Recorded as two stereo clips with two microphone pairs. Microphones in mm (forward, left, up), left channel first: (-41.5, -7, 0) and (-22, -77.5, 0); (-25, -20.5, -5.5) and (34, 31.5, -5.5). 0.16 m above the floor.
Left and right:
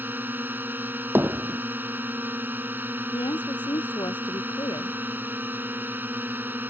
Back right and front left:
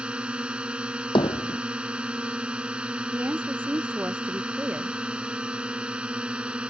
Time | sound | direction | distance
0.0 | a drone | 30° right | ?
1.1 | hammering | 135° right | ?
3.1 | a woman speaking | 110° left | ?